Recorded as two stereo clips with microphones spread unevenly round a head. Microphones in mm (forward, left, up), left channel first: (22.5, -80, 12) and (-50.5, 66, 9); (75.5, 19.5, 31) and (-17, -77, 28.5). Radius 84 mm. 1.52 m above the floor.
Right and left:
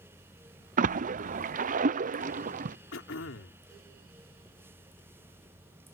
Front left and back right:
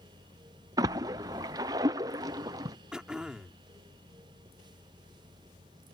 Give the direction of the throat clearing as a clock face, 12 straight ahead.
2 o'clock.